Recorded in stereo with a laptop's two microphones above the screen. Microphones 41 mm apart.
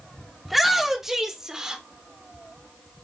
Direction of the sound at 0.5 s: Centre (ahead or behind).